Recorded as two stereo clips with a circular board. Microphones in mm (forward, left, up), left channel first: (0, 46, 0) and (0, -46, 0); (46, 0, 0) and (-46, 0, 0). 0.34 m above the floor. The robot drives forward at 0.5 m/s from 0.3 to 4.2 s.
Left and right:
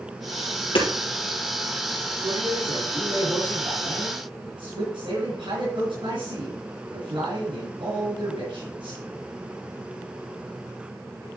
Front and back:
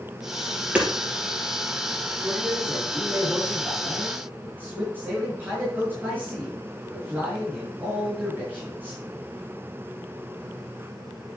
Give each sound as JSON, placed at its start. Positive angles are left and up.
{"t": 0.8, "sound": "hammering", "azimuth_deg": 105, "distance_m": 3.0}
{"t": 2.2, "sound": "a man speaking", "azimuth_deg": -100, "distance_m": 4.5}